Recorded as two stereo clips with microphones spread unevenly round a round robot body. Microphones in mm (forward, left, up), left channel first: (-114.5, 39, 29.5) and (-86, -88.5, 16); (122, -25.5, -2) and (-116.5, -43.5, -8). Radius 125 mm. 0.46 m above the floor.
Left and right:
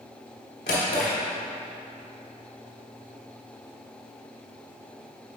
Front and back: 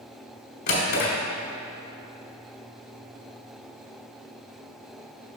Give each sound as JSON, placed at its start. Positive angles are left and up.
{"t": 0.7, "sound": "a drawer", "azimuth_deg": 60, "distance_m": 1.4}